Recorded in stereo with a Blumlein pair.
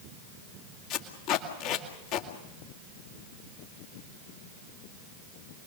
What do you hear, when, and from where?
0.9 s tape being pulled: 40° left, 2.5 m